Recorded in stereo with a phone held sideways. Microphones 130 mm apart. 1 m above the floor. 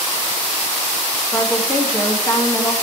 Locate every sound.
1.3 s a woman speaking: 20° left (ahead or behind), 1.6 m